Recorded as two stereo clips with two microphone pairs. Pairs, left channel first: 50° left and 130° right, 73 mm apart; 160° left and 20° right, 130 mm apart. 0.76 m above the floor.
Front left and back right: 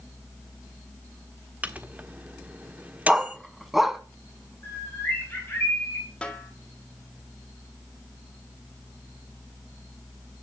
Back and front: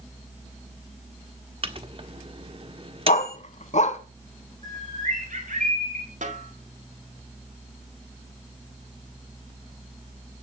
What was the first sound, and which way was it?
A microwave, 65° right.